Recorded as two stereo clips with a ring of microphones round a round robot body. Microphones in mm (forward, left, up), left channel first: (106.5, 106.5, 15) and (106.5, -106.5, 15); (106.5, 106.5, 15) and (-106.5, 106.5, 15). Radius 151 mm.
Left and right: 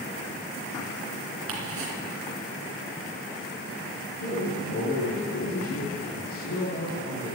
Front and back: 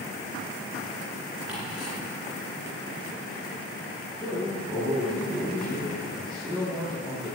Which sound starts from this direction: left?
A man speaking, at 4.2 s.